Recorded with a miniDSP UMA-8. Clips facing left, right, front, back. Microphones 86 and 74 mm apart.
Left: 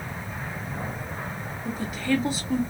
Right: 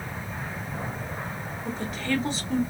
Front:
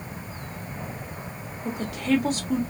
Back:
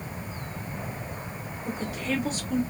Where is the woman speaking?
10° left, 2.0 m.